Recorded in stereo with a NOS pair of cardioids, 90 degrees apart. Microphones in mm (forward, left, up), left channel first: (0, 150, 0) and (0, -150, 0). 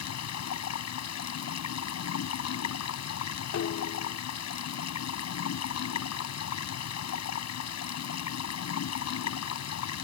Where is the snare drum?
55° left.